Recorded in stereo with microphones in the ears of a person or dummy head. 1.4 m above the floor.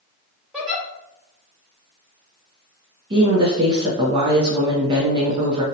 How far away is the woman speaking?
About 0.5 m.